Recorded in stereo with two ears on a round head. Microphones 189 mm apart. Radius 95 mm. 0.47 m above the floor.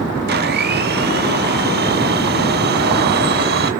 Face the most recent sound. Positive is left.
turn(degrees=-50)  # may be behind; listen again after turning